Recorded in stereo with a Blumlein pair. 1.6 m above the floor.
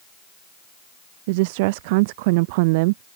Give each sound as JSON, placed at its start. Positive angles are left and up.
{"t": 1.3, "sound": "a woman speaking", "azimuth_deg": -50}